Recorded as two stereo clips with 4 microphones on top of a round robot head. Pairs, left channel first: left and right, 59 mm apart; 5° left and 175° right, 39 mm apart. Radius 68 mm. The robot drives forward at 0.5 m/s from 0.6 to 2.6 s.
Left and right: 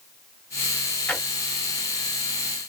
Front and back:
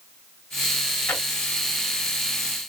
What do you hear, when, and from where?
1.1 s a drawer: 30° left, 1.2 m; by 1.2 s 35° left, 1.1 m